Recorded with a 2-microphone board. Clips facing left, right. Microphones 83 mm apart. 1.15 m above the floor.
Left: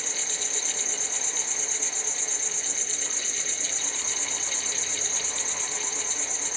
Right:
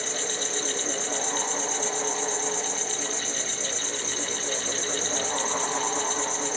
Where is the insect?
60° right (ahead or behind), 1.9 m.